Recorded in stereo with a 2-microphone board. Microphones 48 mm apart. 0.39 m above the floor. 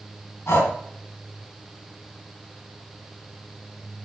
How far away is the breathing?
About 2.5 m.